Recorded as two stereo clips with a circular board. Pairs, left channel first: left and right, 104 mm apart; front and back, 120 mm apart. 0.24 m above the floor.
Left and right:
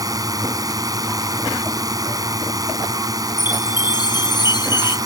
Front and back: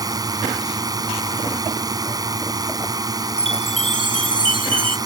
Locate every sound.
0.0 s a drone: 130° right
3.4 s a chime: 135° left